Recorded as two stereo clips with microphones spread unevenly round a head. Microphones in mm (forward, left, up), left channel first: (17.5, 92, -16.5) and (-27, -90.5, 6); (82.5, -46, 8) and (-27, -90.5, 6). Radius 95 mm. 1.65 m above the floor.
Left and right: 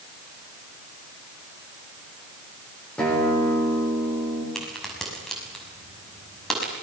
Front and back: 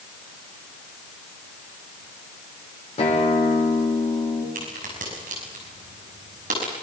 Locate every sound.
3.0 s a guitar: 10° right, 7.5 m
4.5 s a crack: 165° left, 6 m